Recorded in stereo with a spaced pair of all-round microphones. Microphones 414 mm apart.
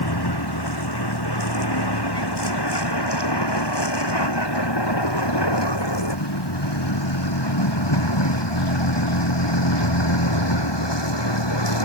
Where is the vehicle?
65° left (ahead or behind); by 11.8 s 85° left.